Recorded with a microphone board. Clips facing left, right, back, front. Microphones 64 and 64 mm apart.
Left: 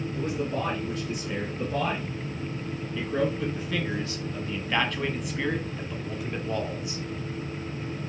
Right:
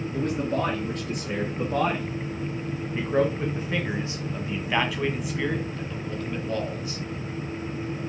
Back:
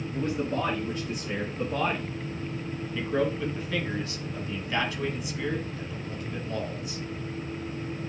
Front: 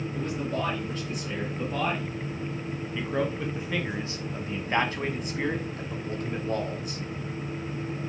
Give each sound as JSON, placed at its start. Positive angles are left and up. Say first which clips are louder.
{"t": 0.1, "sound": "a man speaking", "louder": "right 4 dB, back 3 dB", "azimuth_deg": -110, "distance_m": 2.5}